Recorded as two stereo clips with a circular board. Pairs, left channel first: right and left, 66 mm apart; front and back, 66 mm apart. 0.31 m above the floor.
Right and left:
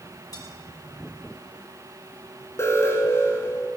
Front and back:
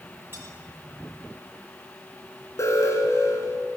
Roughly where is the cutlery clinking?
Behind right.